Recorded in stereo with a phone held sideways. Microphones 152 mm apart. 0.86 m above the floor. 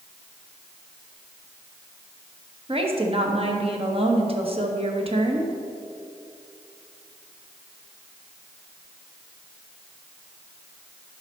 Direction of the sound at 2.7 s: 40° right (ahead or behind).